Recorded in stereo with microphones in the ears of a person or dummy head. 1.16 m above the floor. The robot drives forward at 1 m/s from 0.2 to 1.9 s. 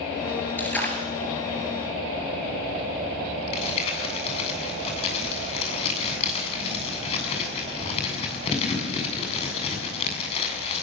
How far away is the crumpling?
About 7.5 m.